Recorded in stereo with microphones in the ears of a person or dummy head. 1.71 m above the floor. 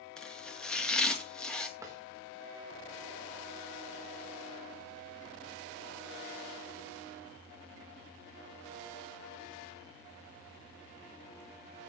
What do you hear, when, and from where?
0.2 s chopping: 10° left (ahead or behind), 2.5 m
1.8 s a drawer: 15° right (ahead or behind), 4 m